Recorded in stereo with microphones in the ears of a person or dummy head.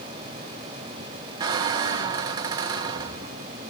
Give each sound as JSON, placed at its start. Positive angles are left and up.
{"t": 1.4, "sound": "a squeak", "side_deg": -25, "distance_m": 0.6}